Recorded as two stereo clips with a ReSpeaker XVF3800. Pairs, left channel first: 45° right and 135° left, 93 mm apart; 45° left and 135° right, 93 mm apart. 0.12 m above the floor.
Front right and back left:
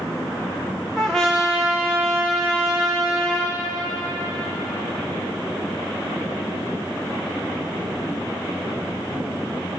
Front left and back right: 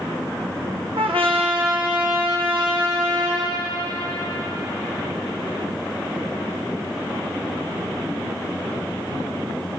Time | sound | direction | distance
1.0 | a trumpet | 130° right | 3.5 m